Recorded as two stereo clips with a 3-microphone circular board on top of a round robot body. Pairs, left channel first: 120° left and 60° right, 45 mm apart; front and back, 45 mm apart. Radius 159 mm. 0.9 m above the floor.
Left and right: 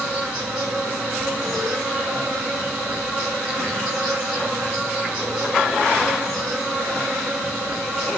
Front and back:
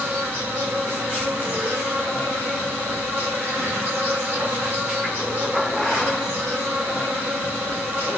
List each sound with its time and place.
0.0 s an insect: 135° right, 1.2 m